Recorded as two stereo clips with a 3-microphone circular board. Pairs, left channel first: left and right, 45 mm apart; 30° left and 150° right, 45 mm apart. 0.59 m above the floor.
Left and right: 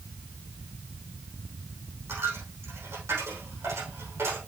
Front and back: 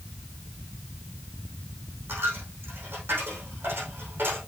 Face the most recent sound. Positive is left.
turn(degrees=-105)